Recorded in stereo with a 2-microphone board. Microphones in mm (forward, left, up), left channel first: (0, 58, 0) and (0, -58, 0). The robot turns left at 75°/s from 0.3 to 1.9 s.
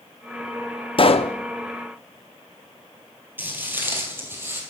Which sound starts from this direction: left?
A pop, at 1.0 s.